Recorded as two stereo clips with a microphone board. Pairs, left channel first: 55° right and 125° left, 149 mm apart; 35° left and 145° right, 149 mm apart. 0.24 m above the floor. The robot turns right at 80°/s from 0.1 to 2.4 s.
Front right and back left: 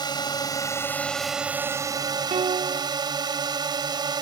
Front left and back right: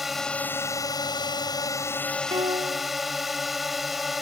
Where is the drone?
60° right; by 4.2 s 125° left.